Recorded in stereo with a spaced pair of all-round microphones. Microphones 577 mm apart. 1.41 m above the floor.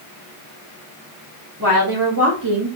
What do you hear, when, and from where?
1.6 s a woman speaking: 35° right (ahead or behind), 1.4 m; by 2.8 s 65° right (ahead or behind), 0.7 m